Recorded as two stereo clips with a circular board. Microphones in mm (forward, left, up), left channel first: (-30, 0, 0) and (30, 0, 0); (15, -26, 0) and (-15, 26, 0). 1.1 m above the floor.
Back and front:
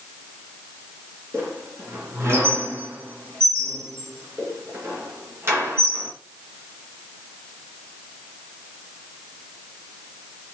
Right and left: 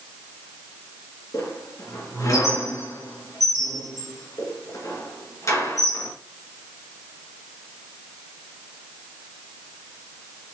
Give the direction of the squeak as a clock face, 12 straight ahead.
1 o'clock.